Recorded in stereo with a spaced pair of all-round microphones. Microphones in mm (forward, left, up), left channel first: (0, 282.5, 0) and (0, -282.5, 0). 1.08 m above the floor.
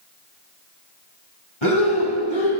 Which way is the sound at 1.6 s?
55° left (ahead or behind).